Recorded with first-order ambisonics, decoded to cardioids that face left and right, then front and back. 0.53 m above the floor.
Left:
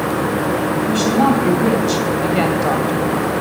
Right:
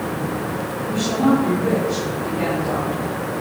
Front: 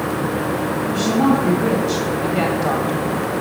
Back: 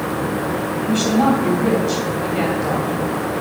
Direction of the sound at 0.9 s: 125° left.